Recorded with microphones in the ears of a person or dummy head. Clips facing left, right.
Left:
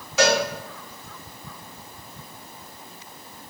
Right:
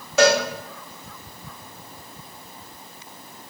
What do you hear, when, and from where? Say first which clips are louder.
0.2 s a cowbell: right 3 dB; 50° right (ahead or behind), 1.2 m